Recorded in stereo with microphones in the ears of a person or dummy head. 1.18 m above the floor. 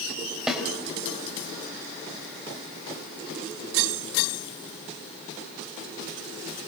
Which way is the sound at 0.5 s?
5° right (ahead or behind).